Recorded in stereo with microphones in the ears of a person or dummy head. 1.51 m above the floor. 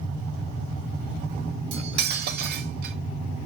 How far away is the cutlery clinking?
About 1.1 m.